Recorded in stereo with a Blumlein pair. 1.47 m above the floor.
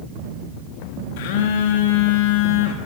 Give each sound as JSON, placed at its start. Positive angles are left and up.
{"t": 1.2, "sound": "a phone buzzing", "azimuth_deg": 50, "distance_m": 3.5}